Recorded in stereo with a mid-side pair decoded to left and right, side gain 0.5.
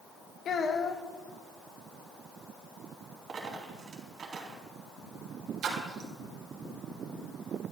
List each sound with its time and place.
0.5 s a child speaking: 50° left, 1.4 m
3.3 s a dropped coin: 50° right, 3.5 m
5.6 s a splash: 60° right, 3 m